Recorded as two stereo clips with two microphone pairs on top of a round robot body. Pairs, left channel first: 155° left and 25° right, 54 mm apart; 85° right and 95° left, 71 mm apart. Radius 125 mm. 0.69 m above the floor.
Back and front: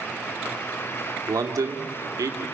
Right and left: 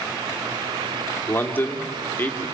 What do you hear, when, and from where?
1.3 s a man speaking: 25° right, 1.7 m